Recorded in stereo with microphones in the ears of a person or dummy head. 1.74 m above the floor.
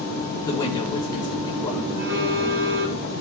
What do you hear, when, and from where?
0.5 s a woman speaking: 25° left (ahead or behind), 6 m
1.9 s a phone buzzing: 50° right (ahead or behind), 5.5 m